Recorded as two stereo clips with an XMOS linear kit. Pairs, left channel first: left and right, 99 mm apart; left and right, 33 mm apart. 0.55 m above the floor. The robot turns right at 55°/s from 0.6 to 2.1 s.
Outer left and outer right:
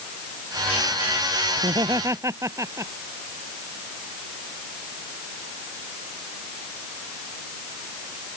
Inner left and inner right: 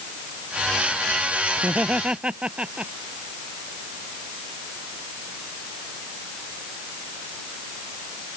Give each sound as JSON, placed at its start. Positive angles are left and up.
{"t": 1.6, "sound": "laughter", "side_deg": -60}